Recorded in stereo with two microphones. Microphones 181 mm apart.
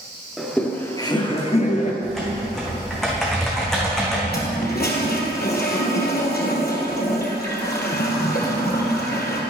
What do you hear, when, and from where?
0.4 s laughter: centre (ahead or behind), 1.4 m; by 1.9 s 45° left (ahead or behind), 1.9 m
2.0 s typing on a keyboard: centre (ahead or behind), 3 m
4.3 s a toilet flushing: 60° left (ahead or behind), 2 m